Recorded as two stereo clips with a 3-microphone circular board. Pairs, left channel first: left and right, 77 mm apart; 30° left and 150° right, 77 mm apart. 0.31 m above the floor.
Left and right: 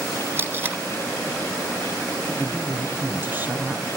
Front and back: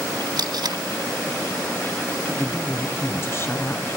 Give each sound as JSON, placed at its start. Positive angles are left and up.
{"t": 0.4, "sound": "tape being pulled", "azimuth_deg": -150, "distance_m": 1.7}
{"t": 2.3, "sound": "a woman speaking", "azimuth_deg": -25, "distance_m": 2.5}